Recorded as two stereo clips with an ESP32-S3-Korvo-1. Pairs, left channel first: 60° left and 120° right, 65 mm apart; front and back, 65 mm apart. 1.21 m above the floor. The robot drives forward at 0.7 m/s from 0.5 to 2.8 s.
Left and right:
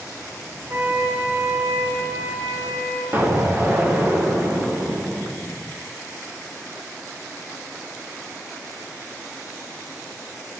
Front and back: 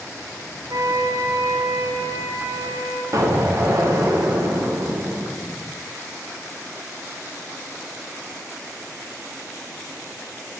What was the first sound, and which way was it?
A flute, 170° right.